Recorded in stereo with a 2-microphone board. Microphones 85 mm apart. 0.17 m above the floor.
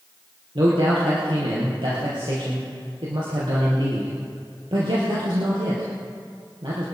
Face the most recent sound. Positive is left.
turn(degrees=-70)  # may be behind; listen again after turning